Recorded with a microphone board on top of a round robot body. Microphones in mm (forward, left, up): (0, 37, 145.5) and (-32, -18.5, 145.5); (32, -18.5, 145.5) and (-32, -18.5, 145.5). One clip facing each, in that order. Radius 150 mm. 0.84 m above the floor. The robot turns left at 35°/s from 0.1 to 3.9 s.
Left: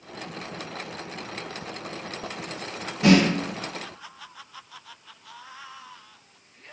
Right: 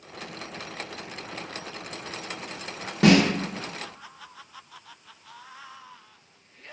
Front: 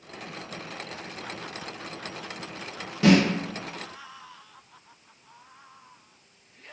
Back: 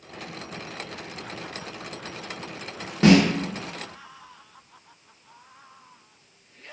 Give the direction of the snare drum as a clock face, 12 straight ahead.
4 o'clock.